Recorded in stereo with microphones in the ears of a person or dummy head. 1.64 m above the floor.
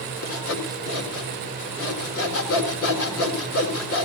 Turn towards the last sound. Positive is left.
turn(degrees=80)